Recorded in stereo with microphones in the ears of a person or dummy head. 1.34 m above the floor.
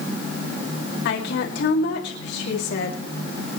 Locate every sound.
1.1 s a woman speaking: 60° left (ahead or behind), 2.5 m